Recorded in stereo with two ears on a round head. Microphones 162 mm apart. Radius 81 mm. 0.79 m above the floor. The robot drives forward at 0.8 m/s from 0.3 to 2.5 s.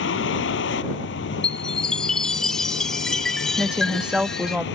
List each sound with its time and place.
0.0 s a vehicle: 85° left; by 4.8 s 80° left
1.4 s a chime: 5° left (ahead or behind)
3.6 s a woman speaking: 5° right (ahead or behind)